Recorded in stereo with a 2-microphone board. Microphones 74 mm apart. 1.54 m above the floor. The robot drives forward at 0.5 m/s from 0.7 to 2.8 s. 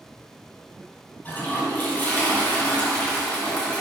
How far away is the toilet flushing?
About 2.5 m.